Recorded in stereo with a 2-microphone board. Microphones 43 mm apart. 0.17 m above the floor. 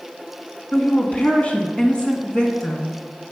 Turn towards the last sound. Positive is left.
turn(degrees=20)  # may be behind; listen again after turning